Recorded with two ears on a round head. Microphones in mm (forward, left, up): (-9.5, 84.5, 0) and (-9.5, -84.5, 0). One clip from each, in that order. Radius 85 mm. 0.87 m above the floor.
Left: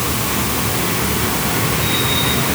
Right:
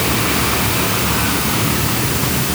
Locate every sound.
Only background noise.